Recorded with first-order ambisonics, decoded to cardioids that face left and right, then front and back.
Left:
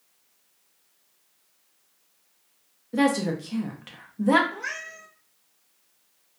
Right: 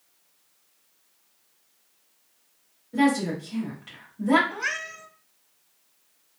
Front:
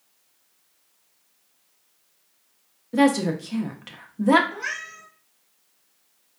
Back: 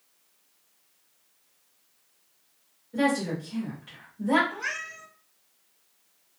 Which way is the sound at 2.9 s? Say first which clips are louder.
Even, front 6 dB; 30° left.